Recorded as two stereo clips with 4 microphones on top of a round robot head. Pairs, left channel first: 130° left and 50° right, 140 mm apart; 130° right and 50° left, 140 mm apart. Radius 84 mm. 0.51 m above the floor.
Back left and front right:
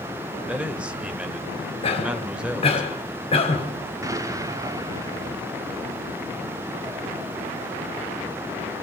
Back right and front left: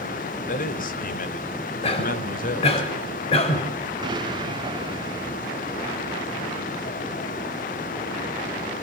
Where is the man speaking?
130° right, 1.9 m.